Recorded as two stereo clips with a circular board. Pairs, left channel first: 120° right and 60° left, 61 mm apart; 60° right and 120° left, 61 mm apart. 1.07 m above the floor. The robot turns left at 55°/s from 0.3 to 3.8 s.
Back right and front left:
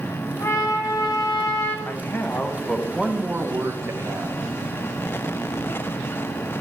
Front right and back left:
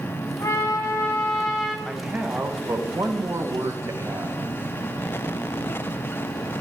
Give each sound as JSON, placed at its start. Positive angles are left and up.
{"t": 0.4, "sound": "a trumpet", "azimuth_deg": -85, "distance_m": 1.4}
{"t": 1.9, "sound": "a man speaking", "azimuth_deg": -160, "distance_m": 0.8}